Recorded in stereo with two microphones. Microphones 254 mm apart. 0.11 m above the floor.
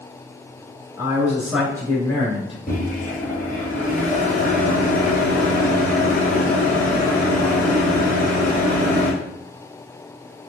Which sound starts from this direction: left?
A microwave, at 2.7 s.